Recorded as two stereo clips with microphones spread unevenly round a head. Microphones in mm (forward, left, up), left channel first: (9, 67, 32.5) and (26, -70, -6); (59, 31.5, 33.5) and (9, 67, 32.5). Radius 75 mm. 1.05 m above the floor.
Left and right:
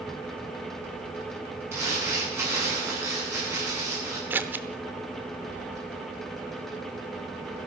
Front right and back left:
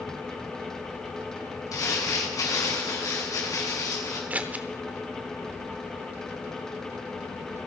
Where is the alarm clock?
No alarm clock in this recording.